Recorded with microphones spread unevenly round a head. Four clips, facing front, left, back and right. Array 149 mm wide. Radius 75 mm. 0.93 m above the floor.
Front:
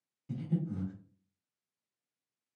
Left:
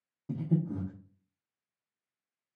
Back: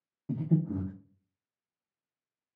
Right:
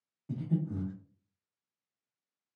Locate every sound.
0.3 s breathing: 160° left, 0.6 m